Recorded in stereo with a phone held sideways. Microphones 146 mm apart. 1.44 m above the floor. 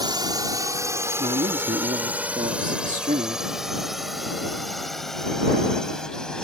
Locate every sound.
0.0 s a drone: 30° right (ahead or behind); by 6.4 s 5° left (ahead or behind)
1.2 s a man speaking: 65° right (ahead or behind)